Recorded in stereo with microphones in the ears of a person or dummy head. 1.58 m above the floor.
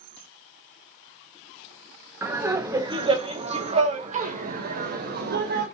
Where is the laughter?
10° right (ahead or behind), 1.8 m; by 5.7 s 60° right (ahead or behind), 2.5 m.